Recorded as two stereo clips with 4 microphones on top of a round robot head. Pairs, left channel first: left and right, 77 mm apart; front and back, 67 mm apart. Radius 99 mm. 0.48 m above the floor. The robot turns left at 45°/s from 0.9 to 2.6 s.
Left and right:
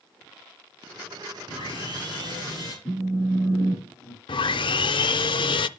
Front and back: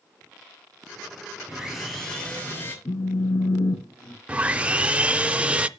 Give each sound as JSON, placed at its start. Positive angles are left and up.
{"t": 1.5, "sound": "sawing", "azimuth_deg": 105, "distance_m": 5.0}
{"t": 2.9, "sound": "a phone buzzing", "azimuth_deg": 10, "distance_m": 3.0}
{"t": 4.3, "sound": "sawing", "azimuth_deg": 105, "distance_m": 0.6}